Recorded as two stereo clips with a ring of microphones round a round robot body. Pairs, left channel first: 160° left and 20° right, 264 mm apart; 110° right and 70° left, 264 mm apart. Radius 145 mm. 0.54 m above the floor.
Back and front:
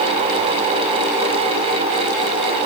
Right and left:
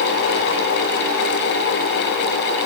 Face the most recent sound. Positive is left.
No sound to turn to.